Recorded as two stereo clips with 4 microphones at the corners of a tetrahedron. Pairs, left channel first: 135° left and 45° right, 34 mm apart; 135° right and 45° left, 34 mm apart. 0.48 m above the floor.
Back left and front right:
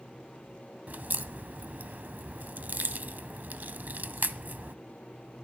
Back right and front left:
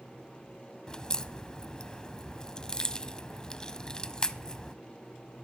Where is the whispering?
I don't hear whispering.